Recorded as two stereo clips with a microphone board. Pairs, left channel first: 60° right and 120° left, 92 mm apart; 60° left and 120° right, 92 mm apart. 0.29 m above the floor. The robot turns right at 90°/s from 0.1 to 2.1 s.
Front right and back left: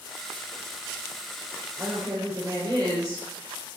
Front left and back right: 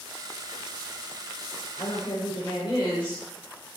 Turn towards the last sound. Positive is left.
turn(degrees=80)